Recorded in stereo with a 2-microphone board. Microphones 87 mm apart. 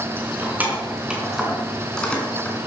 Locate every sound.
0.2 s keys jangling: 25° right (ahead or behind), 4.5 m; by 2.6 s 20° left (ahead or behind), 4 m